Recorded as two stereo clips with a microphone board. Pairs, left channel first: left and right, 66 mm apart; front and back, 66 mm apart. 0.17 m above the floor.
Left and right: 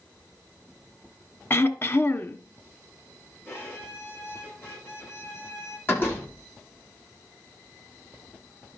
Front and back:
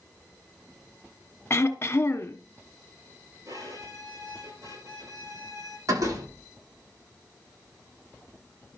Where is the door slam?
145° left, 8.5 m.